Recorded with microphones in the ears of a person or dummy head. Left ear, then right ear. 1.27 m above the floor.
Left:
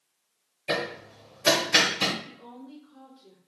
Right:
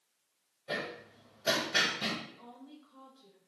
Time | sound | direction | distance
0.7 | hammering | 75° left (ahead or behind) | 0.5 m
2.2 | a woman speaking | 50° right (ahead or behind) | 1.5 m